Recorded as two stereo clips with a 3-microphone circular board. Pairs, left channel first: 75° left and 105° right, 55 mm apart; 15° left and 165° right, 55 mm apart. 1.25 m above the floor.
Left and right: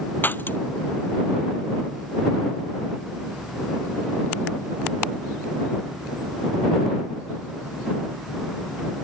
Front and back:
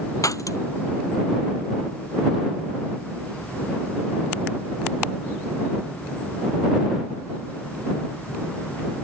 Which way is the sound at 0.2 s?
20° left.